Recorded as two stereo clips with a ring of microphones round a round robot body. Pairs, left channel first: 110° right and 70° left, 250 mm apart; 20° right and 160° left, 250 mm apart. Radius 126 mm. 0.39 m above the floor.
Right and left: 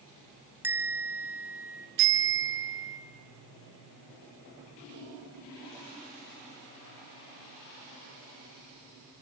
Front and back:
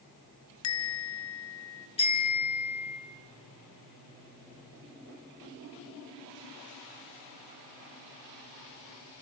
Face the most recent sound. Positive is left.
turn(degrees=45)